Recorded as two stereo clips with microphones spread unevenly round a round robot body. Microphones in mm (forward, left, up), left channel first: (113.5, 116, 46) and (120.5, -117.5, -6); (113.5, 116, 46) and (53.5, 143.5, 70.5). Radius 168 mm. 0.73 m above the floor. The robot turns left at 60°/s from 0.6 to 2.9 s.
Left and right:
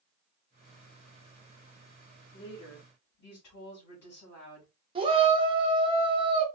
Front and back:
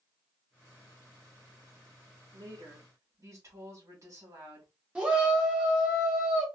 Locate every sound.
2.3 s a woman speaking: 150° left, 2 m; by 4.7 s 115° left, 2 m
5.0 s a shout: 110° right, 0.7 m